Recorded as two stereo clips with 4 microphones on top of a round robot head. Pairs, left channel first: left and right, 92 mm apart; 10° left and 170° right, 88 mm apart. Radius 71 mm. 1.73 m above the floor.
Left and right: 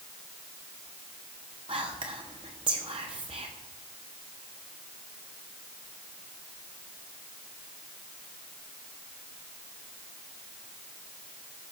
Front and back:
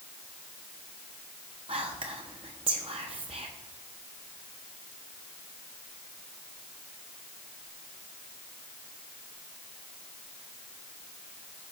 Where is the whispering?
135° right, 0.9 m.